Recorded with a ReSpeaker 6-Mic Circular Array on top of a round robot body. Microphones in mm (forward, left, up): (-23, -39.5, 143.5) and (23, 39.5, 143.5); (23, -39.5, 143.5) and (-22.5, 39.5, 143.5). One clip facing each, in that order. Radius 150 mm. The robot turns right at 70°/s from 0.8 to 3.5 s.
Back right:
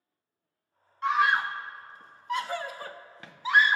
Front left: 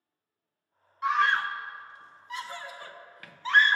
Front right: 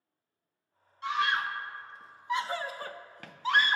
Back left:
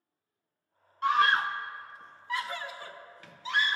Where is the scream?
145° left, 0.6 m; by 3.8 s 45° right, 0.6 m.